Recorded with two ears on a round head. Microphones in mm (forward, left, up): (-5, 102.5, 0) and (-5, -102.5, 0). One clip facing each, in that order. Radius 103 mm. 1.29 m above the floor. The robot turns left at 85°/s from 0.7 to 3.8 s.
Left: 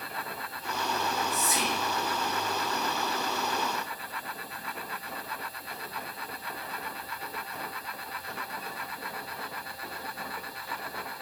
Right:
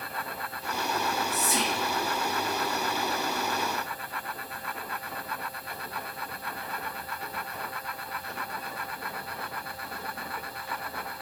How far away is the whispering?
About 0.7 m.